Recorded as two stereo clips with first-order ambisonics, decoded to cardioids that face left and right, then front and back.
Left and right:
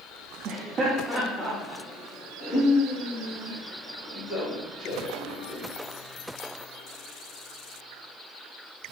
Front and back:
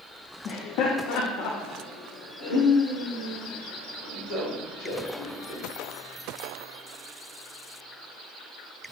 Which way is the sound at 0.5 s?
45° right.